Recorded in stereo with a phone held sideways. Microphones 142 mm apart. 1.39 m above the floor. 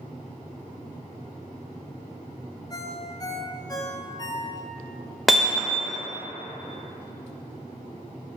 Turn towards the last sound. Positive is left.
turn(degrees=0)  # may be behind; listen again after turning